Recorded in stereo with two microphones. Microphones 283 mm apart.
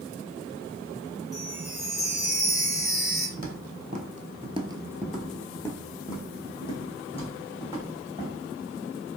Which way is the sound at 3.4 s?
30° right (ahead or behind).